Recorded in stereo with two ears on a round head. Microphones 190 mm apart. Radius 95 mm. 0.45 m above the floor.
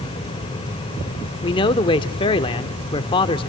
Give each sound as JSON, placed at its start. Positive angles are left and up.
{"t": 1.4, "sound": "a man speaking", "side_deg": 25, "distance_m": 0.8}